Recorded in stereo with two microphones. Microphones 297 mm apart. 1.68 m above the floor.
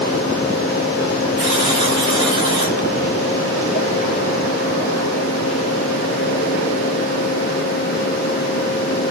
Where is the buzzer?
15° right (ahead or behind), 4.5 m.